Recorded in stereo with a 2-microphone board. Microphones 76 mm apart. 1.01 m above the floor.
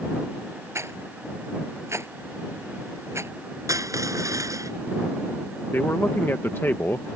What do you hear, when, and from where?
0.8 s a rattle: 40° right (ahead or behind)
3.7 s crushing: 45° right (ahead or behind)
5.7 s a man speaking: 30° left (ahead or behind)